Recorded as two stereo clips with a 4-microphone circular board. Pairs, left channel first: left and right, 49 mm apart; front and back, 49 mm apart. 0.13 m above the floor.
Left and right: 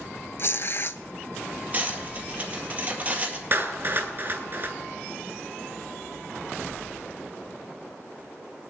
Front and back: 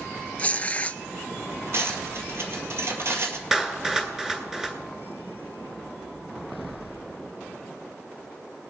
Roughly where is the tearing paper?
Ahead left.